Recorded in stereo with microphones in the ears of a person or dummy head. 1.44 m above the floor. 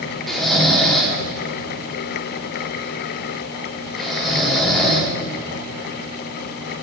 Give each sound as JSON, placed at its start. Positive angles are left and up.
{"t": 0.3, "sound": "snoring", "side_deg": 0, "distance_m": 0.9}